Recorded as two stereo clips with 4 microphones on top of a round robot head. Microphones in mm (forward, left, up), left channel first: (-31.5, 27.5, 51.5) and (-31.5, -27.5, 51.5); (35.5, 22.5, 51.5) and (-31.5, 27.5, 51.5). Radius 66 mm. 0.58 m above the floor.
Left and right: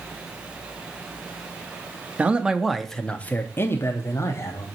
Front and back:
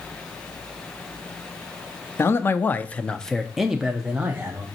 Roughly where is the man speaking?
Ahead right.